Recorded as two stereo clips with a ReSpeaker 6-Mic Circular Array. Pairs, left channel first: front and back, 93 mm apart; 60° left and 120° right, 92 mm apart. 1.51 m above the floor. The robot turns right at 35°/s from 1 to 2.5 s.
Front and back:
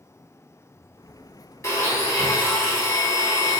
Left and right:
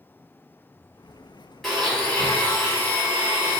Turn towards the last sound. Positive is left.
turn(degrees=5)